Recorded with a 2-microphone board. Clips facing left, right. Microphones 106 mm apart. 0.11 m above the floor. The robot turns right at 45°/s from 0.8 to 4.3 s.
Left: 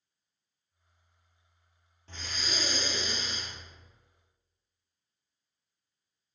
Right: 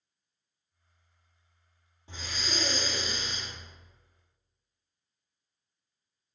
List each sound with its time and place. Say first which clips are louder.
2.1 s breathing: right 2 dB; 15° right, 0.9 m; by 3.5 s 50° left, 0.9 m